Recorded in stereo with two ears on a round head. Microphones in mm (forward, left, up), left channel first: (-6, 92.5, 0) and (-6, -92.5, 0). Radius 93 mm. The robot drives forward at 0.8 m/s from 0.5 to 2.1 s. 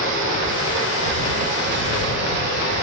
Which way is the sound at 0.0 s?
70° right (ahead or behind).